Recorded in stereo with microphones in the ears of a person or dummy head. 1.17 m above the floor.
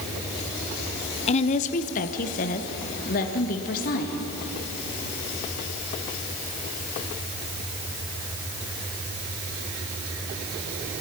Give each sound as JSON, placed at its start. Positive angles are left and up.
{"t": 1.3, "sound": "a woman speaking", "side_deg": 35, "distance_m": 0.6}